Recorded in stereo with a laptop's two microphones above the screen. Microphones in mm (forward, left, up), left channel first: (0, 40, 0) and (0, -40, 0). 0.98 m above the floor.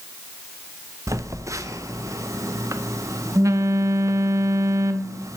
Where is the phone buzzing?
40° right (ahead or behind), 0.6 m.